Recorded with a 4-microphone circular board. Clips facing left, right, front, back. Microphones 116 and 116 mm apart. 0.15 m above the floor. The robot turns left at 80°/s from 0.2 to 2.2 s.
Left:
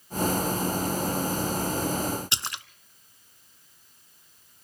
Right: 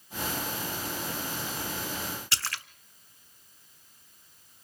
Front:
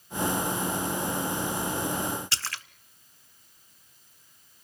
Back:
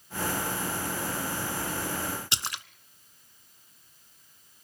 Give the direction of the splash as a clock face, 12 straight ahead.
8 o'clock.